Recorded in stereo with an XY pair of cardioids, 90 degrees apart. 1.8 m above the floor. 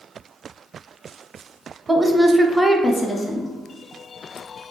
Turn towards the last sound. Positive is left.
turn(degrees=50)